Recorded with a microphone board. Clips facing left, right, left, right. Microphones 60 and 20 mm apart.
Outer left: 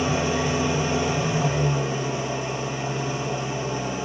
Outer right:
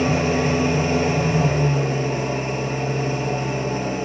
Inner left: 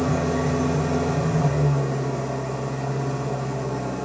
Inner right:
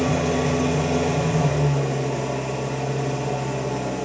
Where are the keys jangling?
I don't hear keys jangling.